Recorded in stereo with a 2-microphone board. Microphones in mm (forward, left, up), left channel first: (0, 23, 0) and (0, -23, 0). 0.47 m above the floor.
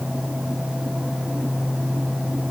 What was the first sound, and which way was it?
Only background noise.